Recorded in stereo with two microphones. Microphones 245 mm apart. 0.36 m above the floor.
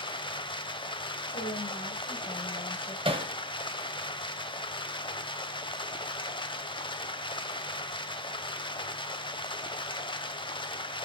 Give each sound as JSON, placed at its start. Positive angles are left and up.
{"t": 0.0, "sound": "running water", "side_deg": 20, "distance_m": 0.7}
{"t": 1.3, "sound": "a woman speaking", "side_deg": 25, "distance_m": 2.0}
{"t": 3.0, "sound": "hammering", "side_deg": -20, "distance_m": 1.3}